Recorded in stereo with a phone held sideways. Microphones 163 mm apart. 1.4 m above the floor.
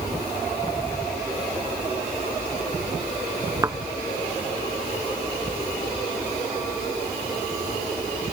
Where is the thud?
20° right (ahead or behind).